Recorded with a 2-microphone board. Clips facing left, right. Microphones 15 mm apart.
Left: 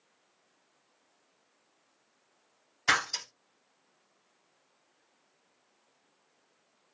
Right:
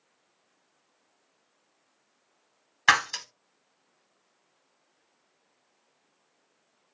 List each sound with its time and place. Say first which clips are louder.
2.9 s breaking glass: right 5 dB; 60° right (ahead or behind), 1.3 m